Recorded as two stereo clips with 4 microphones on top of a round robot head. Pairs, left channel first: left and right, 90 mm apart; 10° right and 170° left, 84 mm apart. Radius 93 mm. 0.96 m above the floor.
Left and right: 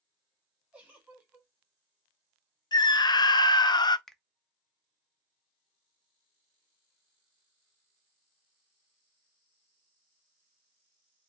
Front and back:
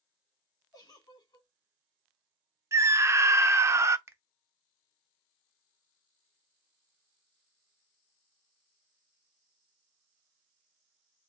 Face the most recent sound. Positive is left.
turn(degrees=175)